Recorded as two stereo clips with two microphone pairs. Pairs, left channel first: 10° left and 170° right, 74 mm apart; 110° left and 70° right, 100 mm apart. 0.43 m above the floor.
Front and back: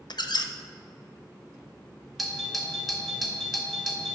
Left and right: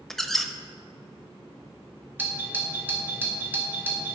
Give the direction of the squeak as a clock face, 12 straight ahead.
11 o'clock.